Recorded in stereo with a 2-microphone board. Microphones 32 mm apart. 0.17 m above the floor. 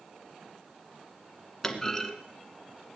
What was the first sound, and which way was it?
A clunk, 15° left (ahead or behind).